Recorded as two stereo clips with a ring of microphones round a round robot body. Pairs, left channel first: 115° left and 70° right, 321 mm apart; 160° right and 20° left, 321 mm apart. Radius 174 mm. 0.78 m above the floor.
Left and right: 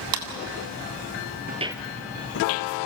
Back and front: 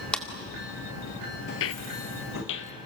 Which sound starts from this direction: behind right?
Footsteps, at 1.5 s.